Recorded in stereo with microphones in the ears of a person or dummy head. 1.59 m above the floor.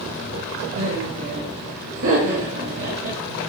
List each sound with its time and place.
0.8 s laughter: 75° right (ahead or behind), 2.5 m